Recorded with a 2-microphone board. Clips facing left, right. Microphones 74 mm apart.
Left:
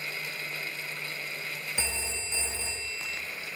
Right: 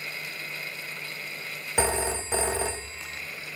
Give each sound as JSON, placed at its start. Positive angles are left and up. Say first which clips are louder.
{"t": 1.8, "sound": "a phone ringing", "louder": "right 15 dB", "side_deg": -65, "distance_m": 0.6}